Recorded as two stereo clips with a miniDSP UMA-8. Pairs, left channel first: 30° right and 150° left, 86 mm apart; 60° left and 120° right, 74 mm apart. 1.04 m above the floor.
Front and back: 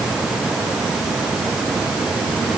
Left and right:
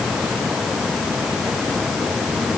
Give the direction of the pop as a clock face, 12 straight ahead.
No pop in this recording.